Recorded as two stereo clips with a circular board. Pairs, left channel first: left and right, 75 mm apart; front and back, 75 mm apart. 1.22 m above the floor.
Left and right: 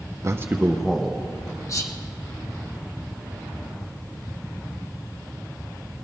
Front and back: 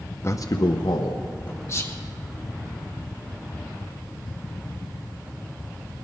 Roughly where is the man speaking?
Ahead right.